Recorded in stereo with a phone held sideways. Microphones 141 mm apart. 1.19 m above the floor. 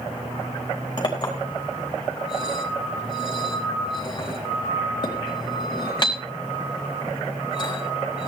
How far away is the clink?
About 4 m.